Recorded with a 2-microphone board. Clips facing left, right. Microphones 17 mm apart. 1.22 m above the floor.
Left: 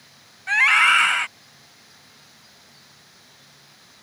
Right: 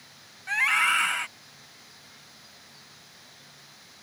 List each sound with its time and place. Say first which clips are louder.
0.5 s a scream: left 7 dB; 30° left (ahead or behind)